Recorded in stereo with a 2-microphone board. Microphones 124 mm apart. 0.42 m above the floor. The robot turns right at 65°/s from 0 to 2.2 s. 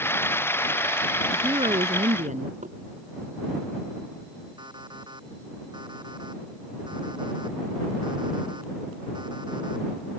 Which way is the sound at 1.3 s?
155° right.